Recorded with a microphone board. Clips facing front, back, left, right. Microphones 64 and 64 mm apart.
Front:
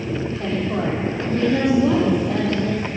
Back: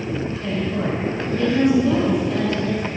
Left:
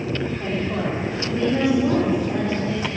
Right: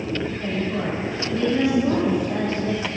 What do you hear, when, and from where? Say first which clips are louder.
0.4 s a woman speaking: front 2 dB, left 1 dB; 15° left, 6.5 m; by 2.8 s 5° left, 7.5 m